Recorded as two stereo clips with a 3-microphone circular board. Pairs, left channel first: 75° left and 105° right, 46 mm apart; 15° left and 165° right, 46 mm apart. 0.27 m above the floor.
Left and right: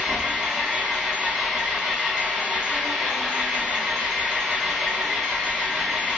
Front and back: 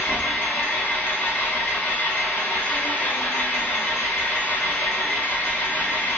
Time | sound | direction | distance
0.0 | an engine running | 20° right | 0.8 m